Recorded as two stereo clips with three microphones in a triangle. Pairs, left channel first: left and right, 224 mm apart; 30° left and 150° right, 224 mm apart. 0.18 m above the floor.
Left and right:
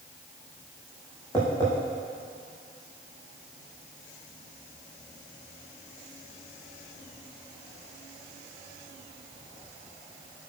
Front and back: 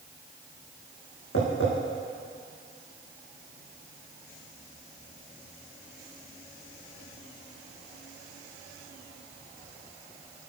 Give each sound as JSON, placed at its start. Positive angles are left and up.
{"t": 1.3, "sound": "tapping", "azimuth_deg": 15, "distance_m": 5.0}